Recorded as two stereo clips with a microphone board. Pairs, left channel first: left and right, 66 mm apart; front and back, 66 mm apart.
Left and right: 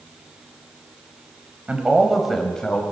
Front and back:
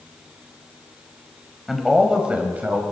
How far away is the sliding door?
No sliding door in this recording.